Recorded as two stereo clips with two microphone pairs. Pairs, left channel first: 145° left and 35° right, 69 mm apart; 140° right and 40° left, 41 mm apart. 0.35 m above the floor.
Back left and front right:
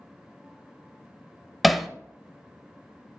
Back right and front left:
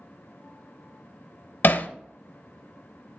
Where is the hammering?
125° right, 0.5 m.